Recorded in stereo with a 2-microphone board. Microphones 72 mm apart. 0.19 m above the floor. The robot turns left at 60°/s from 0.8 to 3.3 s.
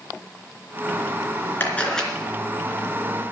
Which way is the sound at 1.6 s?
25° left (ahead or behind).